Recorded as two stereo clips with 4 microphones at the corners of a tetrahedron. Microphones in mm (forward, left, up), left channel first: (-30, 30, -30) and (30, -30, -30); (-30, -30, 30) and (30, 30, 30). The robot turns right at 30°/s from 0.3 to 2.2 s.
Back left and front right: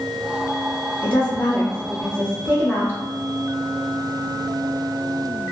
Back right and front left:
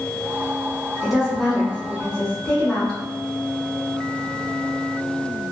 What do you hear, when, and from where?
1.0 s a woman speaking: 130° left, 1.1 m; by 3.0 s 165° left, 1.1 m